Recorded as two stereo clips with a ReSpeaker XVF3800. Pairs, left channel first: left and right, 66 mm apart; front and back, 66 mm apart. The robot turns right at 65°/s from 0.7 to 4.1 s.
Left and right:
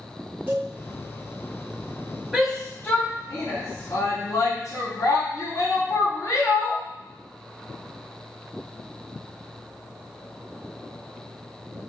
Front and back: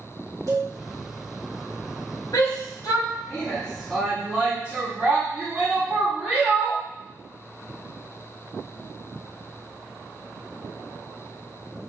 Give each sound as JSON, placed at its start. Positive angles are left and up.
{"t": 0.5, "sound": "a cowbell", "azimuth_deg": -150, "distance_m": 3.0}
{"t": 2.3, "sound": "a shout", "azimuth_deg": -10, "distance_m": 3.0}